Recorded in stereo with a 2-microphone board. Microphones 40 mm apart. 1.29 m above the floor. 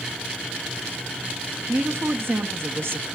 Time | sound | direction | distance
1.7 | a woman speaking | 80° right | 0.9 m